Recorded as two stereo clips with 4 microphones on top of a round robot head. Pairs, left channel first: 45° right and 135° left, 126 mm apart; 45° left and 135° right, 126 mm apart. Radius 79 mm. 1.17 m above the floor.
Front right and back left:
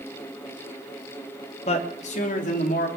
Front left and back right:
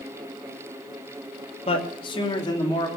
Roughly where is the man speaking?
Ahead.